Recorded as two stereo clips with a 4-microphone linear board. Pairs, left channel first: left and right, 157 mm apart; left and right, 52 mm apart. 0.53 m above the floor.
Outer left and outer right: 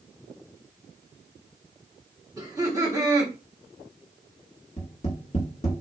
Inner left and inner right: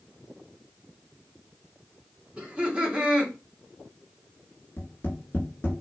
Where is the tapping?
40° left (ahead or behind), 1.3 m.